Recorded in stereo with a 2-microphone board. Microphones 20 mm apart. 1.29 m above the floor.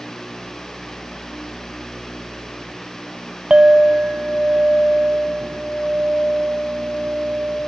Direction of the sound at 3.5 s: 45° right (ahead or behind).